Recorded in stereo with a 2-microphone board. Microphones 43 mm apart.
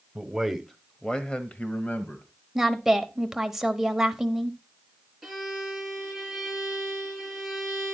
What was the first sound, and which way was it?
A man speaking, 10° right (ahead or behind).